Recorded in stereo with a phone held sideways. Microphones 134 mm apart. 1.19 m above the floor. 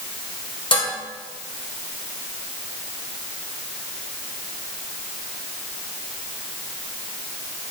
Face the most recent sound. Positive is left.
turn(degrees=40)  # may be behind; listen again after turning